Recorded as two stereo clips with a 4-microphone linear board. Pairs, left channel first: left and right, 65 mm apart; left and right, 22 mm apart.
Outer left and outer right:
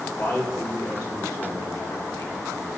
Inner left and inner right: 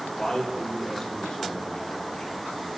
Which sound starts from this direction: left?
A man speaking, at 0.2 s.